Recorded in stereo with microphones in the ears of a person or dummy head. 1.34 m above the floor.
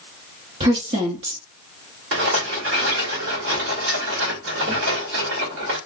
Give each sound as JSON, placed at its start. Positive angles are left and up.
{"t": 0.6, "sound": "a woman speaking", "side_deg": -35, "distance_m": 0.7}
{"t": 2.1, "sound": "a rattle", "side_deg": -65, "distance_m": 2.0}